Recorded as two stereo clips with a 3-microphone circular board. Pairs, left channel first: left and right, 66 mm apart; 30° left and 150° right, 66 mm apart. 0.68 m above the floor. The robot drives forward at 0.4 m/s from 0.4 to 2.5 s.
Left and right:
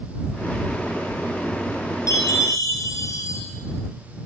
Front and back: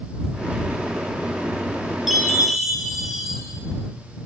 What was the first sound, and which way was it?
A chime, 125° left.